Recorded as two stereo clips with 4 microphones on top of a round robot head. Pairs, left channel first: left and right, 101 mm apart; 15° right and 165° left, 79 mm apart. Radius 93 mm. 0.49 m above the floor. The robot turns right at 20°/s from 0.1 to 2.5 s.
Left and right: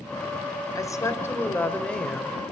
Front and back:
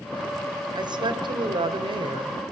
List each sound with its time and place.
0.8 s a woman speaking: 145° left, 2.5 m; by 2.4 s straight behind, 2.5 m